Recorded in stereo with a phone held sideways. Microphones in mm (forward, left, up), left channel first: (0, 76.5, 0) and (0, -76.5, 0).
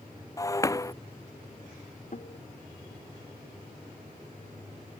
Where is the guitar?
60° left (ahead or behind).